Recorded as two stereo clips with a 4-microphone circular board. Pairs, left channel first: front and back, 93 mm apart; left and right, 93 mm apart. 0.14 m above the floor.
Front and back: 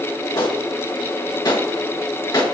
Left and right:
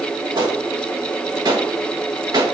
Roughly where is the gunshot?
Ahead right.